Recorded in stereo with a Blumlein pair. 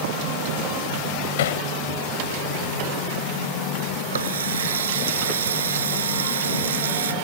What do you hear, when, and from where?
1.4 s hammering: 55° left
4.1 s a running tap: 65° right